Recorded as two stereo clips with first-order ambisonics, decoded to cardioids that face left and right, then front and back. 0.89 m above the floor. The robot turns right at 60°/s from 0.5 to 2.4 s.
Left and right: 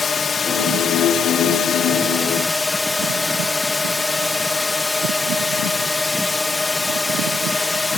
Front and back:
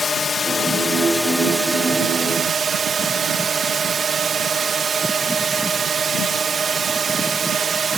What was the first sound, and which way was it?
A drone, 45° left.